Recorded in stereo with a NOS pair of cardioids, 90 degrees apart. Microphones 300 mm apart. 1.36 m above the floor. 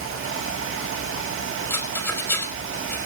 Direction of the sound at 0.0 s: 45° right.